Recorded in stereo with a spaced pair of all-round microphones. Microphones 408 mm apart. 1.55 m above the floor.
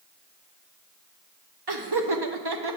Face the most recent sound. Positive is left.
turn(degrees=-70)  # may be behind; listen again after turning